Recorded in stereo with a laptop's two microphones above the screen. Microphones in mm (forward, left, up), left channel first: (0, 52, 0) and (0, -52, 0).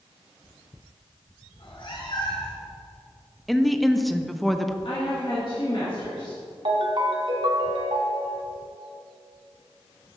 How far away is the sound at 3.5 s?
About 0.6 m.